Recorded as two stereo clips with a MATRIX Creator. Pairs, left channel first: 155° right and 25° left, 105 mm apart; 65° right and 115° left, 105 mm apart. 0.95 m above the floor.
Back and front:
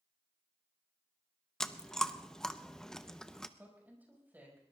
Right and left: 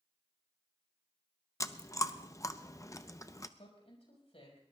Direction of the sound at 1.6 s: 80° right.